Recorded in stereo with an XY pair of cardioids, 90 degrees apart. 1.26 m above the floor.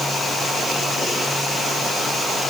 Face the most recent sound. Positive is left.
No sound to turn to.